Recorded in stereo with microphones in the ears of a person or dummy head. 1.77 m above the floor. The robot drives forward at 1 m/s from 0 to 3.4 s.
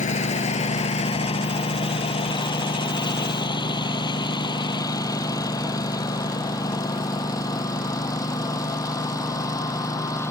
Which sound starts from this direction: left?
A lawn mower, at 0.0 s.